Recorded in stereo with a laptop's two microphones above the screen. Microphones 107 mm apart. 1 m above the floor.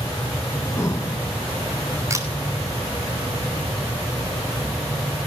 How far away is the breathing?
About 1.1 m.